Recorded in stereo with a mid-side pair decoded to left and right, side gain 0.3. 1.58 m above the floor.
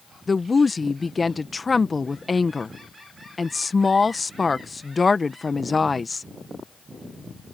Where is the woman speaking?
30° left.